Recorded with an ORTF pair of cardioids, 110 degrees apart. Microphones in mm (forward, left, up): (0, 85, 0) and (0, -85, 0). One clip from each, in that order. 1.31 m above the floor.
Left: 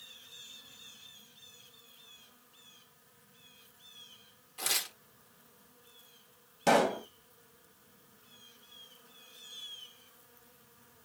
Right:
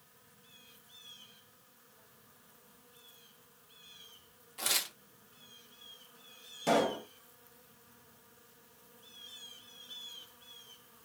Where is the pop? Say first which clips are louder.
Left 3 dB; 35° left, 0.7 m.